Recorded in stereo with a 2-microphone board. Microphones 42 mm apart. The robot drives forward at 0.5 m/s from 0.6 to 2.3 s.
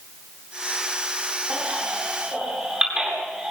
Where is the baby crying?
25° right (ahead or behind), 8.5 m.